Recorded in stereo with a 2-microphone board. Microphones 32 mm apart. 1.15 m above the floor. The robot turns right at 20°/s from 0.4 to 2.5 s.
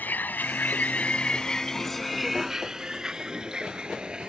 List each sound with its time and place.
0.0 s a vehicle: 80° left; by 4.3 s 30° right (ahead or behind)